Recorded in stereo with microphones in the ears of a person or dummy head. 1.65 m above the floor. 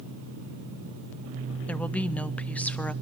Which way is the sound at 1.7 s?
10° left (ahead or behind).